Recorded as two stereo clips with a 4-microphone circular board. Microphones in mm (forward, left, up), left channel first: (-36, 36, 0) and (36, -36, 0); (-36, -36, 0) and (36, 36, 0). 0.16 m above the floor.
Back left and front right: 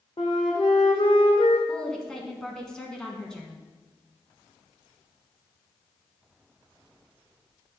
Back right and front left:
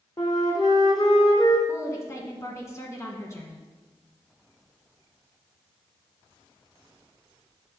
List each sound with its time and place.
0.2 s a flute: 175° left, 1.6 m
1.7 s a woman speaking: 145° right, 1.1 m